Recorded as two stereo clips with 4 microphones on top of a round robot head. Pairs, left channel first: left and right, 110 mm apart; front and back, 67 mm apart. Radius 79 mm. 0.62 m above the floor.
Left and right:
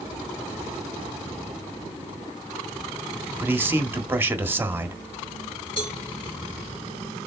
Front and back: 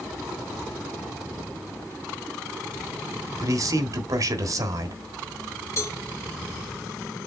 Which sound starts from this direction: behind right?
A man speaking, at 3.4 s.